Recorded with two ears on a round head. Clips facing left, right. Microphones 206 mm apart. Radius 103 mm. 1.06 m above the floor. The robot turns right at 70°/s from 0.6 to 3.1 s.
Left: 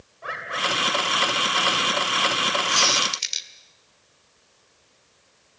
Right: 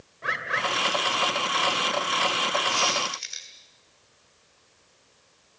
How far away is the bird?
About 2.5 m.